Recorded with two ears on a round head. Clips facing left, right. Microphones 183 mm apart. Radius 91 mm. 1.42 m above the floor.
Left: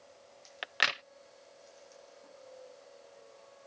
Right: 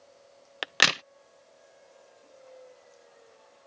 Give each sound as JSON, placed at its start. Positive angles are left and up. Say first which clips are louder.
{"t": 0.6, "sound": "a crack", "louder": "right 8 dB", "side_deg": -65}